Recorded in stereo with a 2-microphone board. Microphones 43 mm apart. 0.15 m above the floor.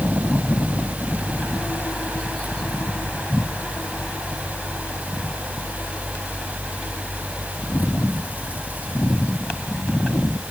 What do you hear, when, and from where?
Only background noise.